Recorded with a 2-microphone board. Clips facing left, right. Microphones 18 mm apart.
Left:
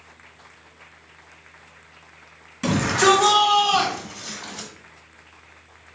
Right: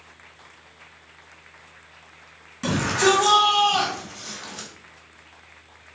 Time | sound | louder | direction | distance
2.6 | a shout | left 2 dB | centre (ahead or behind) | 2 m